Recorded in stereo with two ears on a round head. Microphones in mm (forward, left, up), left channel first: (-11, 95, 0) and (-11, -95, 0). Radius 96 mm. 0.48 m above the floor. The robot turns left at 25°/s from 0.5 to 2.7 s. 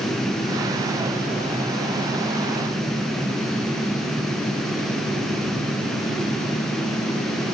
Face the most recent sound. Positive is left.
No sound to turn to.